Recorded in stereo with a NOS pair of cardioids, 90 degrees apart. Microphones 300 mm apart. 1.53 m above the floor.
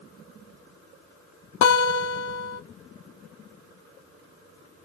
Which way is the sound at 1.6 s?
45° left.